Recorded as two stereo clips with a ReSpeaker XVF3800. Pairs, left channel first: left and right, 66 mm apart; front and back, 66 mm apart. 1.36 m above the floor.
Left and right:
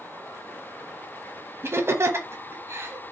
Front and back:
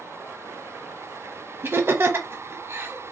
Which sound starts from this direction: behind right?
Laughter, at 1.6 s.